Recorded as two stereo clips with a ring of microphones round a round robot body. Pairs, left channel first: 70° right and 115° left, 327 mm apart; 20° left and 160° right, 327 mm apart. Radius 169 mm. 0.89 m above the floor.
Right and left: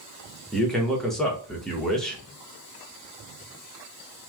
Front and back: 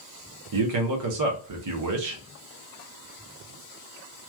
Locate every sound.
0.5 s a man speaking: 155° right, 0.9 m